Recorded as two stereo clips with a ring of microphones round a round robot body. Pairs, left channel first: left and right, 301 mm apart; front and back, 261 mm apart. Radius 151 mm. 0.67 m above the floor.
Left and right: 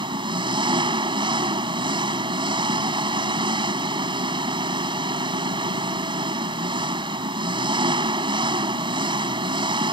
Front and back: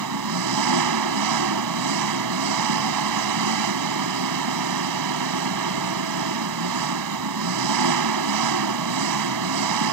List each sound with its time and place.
0.0 s an engine running: 165° right